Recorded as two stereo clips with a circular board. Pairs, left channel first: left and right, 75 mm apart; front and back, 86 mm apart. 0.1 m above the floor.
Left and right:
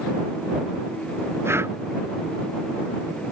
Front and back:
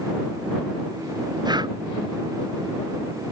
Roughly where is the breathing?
Behind right.